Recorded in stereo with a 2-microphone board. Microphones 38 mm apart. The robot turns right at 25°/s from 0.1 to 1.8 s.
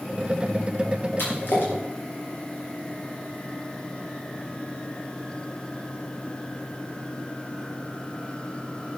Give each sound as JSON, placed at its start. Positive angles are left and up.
{"t": 1.2, "sound": "a splash", "side_deg": 85, "distance_m": 6.5}